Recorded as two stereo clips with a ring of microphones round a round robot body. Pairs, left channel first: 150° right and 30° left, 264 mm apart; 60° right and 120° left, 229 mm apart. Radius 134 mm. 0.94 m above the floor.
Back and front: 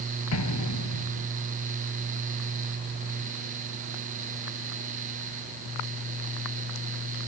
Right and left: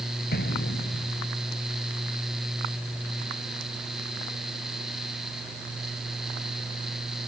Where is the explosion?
120° right.